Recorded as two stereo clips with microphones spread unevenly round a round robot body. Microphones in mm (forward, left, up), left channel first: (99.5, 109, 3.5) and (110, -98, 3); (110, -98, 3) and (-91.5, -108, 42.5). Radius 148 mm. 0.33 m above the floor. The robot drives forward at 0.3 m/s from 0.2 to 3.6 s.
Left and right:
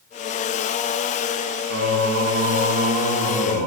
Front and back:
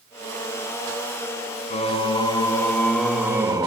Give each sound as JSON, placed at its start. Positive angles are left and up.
{"t": 1.7, "sound": "singing", "azimuth_deg": -60, "distance_m": 0.8}